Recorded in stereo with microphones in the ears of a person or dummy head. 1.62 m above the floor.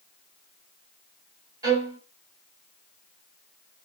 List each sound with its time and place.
1.6 s a violin: 20° right (ahead or behind), 4.5 m